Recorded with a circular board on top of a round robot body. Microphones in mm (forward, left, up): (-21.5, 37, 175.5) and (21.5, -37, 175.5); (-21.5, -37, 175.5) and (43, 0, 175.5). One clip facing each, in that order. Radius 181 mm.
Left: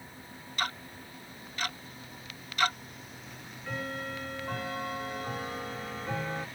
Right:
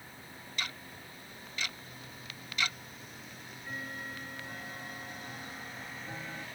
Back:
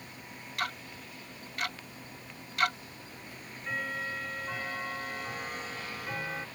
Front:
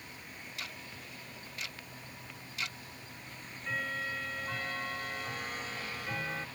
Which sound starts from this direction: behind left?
Ticking, at 3.3 s.